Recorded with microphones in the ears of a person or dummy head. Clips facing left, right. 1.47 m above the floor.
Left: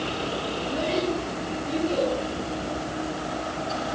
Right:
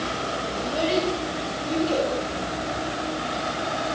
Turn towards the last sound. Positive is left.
turn(degrees=-60)  # may be behind; listen again after turning